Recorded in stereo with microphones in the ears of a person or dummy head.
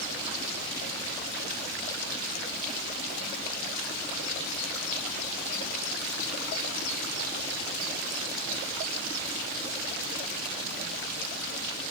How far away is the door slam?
No door slam in this recording.